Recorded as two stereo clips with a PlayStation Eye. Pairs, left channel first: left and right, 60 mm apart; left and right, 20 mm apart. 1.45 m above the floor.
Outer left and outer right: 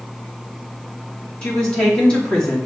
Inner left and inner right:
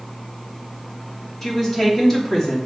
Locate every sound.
1.4 s a woman speaking: 20° left (ahead or behind), 2.5 m